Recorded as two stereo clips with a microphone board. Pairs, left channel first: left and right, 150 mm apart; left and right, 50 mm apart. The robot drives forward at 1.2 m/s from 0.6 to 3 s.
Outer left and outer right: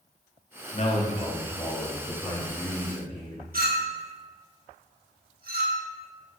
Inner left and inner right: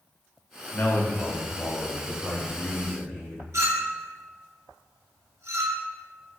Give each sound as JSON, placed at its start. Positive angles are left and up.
{"t": 0.7, "sound": "a man speaking", "side_deg": 50, "distance_m": 1.3}
{"t": 3.5, "sound": "a clink", "side_deg": -75, "distance_m": 1.0}